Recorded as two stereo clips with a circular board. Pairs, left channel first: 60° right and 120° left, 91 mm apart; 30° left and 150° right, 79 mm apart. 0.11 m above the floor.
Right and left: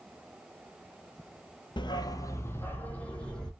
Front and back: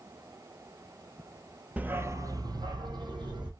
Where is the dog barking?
80° right, 0.5 m; by 3.5 s 140° right, 1.3 m.